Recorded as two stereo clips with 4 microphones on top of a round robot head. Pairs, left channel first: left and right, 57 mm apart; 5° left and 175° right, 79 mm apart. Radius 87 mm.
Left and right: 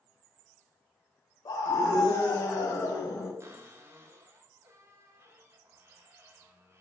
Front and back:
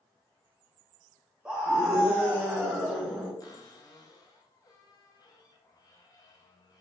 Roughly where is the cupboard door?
Ahead right.